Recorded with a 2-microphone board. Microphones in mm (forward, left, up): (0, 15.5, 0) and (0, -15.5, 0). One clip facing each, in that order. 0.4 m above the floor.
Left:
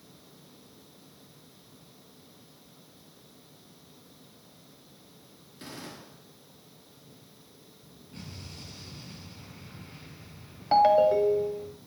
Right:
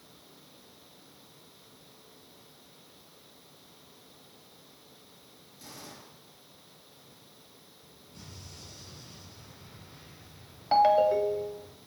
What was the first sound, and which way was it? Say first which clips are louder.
A gunshot: left 5 dB; 50° left (ahead or behind).